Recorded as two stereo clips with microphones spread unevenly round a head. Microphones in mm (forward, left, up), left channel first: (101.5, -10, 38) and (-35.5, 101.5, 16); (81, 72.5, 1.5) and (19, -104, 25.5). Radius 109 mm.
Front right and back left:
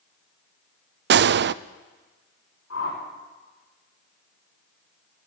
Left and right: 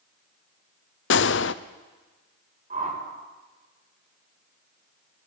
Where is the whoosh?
60° right, 5 m.